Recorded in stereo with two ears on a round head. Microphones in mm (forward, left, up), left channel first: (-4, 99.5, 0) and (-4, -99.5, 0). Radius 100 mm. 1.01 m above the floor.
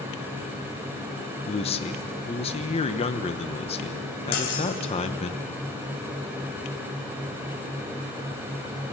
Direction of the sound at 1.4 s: 25° left (ahead or behind).